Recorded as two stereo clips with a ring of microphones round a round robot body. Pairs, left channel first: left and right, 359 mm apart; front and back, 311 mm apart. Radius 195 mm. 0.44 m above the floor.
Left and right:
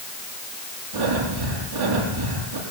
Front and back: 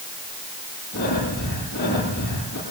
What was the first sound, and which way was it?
Breathing, 65° right.